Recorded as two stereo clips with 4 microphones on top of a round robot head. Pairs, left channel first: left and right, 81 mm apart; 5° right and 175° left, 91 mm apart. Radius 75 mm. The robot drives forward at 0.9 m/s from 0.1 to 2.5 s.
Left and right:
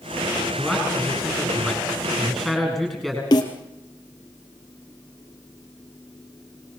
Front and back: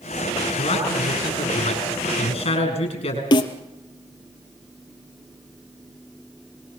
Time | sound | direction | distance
0.6 | a man speaking | straight ahead | 9.5 m
3.3 | a snare drum | 35° left | 2.5 m